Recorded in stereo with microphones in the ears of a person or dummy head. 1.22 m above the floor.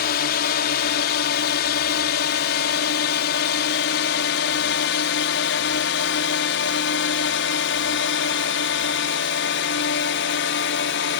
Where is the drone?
55° left (ahead or behind); by 11.2 s 65° left (ahead or behind).